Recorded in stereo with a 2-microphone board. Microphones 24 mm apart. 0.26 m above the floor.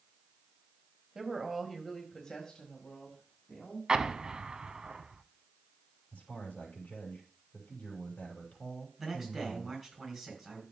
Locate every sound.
1.1 s a woman speaking: 25° right (ahead or behind), 1.5 m; by 3.8 s 60° left (ahead or behind), 2.5 m
3.9 s an explosion: 30° right (ahead or behind), 0.6 m
6.1 s a man speaking: 80° left, 5.5 m
9.0 s a man speaking: 5° right (ahead or behind), 3.5 m